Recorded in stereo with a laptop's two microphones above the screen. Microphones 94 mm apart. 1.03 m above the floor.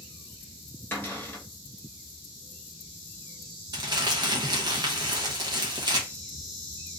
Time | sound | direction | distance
0.9 | a cupboard door | 20° left (ahead or behind) | 1.1 m
3.7 | crumpling | 45° right (ahead or behind) | 0.8 m